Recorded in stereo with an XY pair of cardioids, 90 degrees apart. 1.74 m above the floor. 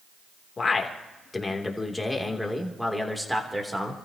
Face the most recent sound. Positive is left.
turn(degrees=-10)